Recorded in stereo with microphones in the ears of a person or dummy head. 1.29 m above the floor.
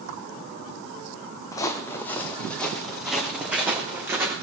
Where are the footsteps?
20° left (ahead or behind), 2.5 m; by 4.3 s 15° right (ahead or behind), 3.5 m.